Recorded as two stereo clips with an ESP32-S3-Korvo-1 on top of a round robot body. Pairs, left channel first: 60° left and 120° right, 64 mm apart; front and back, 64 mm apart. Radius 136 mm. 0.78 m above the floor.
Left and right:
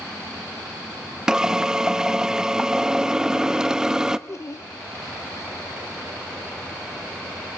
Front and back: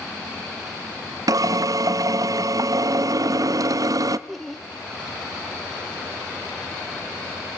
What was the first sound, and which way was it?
A drill, 160° left.